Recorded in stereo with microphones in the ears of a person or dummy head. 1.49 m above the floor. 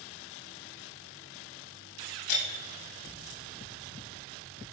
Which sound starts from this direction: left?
Breaking glass, at 2.3 s.